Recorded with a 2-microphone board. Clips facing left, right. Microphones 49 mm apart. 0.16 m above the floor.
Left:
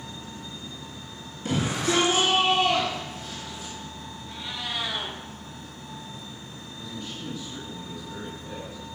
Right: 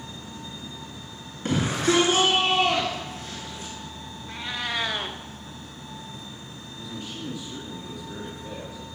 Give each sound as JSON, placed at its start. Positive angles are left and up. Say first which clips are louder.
{"t": 1.4, "sound": "a shout", "louder": "right 3 dB", "side_deg": -55, "distance_m": 2.5}
{"t": 4.3, "sound": "a cat meowing", "louder": "right 4 dB", "side_deg": -55, "distance_m": 1.2}
{"t": 6.8, "sound": "a man speaking", "louder": "right 1 dB", "side_deg": -75, "distance_m": 5.5}